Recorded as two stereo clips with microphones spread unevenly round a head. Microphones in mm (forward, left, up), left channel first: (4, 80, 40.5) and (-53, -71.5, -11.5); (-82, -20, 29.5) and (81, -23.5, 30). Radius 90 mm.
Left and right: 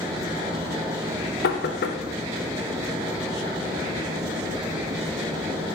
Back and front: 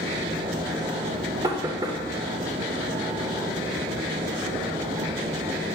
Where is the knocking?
70° left, 0.6 m.